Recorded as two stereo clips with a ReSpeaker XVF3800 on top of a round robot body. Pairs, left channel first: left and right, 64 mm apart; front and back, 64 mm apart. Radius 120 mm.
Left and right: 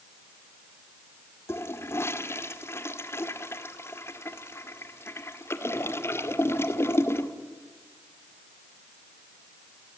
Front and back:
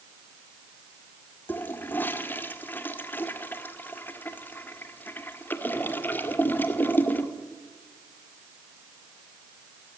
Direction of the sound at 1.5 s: 55° left.